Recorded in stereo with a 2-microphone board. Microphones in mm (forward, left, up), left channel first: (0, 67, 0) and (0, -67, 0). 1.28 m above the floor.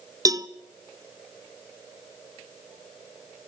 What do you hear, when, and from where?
0.2 s a cowbell: 25° right (ahead or behind), 0.7 m